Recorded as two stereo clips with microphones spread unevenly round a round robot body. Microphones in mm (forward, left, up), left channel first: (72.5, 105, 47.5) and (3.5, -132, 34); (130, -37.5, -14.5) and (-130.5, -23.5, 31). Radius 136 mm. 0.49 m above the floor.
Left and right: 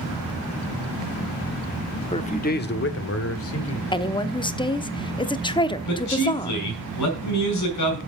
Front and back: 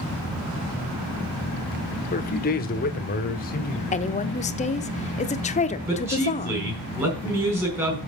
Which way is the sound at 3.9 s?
10° left.